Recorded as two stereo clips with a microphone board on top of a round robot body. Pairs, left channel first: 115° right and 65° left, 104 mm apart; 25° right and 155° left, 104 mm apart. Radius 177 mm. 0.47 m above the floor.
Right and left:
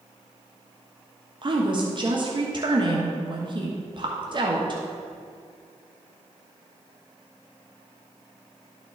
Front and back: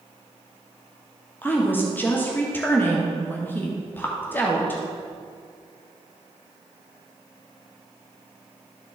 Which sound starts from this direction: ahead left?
A woman speaking, at 1.4 s.